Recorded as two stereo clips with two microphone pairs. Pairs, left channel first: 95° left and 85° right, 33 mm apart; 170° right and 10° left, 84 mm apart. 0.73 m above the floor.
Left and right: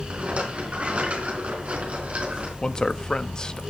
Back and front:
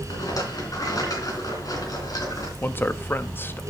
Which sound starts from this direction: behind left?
A man speaking, at 2.6 s.